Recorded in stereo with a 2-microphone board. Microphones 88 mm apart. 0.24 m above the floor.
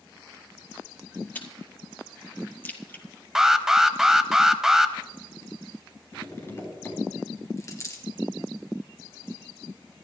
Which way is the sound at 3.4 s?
5° right (ahead or behind).